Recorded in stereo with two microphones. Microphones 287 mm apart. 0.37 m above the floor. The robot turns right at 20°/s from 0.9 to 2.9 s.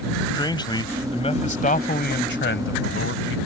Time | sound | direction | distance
0.3 | a man speaking | 15° left | ?